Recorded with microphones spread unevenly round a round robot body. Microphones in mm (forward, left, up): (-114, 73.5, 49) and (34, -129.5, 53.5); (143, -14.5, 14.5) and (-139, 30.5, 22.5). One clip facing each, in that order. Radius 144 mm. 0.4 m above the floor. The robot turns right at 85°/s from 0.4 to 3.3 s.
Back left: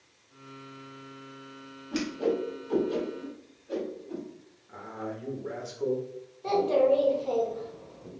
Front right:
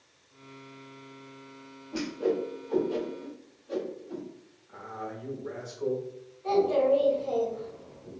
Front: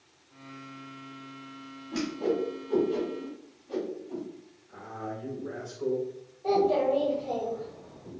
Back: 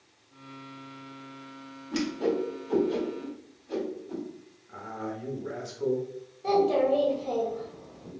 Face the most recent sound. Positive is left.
turn(degrees=115)